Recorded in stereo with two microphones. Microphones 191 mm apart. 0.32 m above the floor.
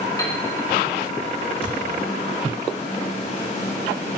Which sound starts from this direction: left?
A thud, at 1.6 s.